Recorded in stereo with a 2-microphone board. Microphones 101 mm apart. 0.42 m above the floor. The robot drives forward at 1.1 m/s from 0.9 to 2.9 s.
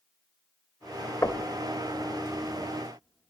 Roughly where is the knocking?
Left.